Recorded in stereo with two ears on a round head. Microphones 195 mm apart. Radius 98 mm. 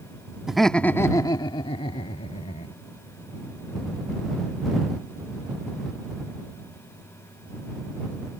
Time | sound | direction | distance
0.5 | laughter | centre (ahead or behind) | ?